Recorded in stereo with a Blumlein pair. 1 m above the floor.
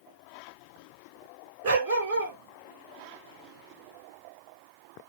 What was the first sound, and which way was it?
A dog barking, 55° right.